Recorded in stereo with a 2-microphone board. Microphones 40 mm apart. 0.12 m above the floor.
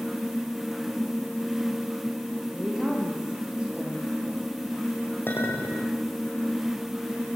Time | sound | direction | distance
2.5 | a woman speaking | 20° right (ahead or behind) | 6 m
5.3 | a clink | 60° left (ahead or behind) | 6 m